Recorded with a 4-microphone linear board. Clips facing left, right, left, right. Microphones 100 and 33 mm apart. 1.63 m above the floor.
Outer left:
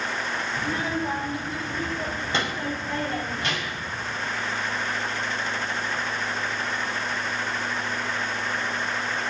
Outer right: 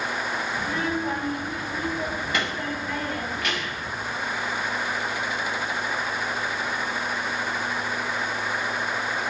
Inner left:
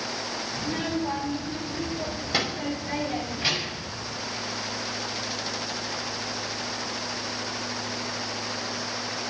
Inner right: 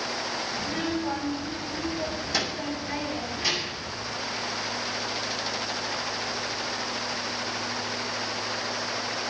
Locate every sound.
0.6 s a child speaking: 20° left (ahead or behind), 3.5 m; by 3.9 s 30° left (ahead or behind), 7 m